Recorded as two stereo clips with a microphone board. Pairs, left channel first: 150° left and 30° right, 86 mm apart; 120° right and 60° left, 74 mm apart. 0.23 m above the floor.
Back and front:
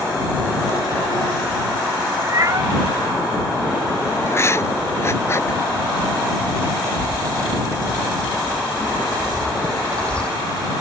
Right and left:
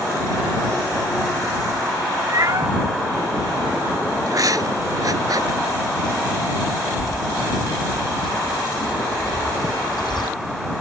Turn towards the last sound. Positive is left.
turn(degrees=-130)